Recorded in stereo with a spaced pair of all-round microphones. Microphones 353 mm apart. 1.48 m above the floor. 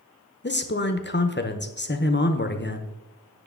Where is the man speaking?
30° left (ahead or behind), 0.8 m.